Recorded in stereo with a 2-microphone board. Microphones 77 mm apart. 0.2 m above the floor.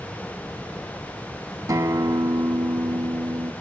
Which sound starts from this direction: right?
A guitar, at 1.7 s.